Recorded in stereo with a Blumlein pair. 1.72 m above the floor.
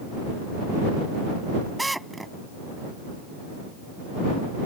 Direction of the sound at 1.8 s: 5° right.